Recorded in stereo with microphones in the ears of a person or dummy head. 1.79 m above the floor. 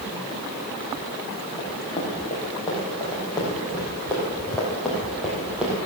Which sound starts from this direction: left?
Running footsteps, at 1.6 s.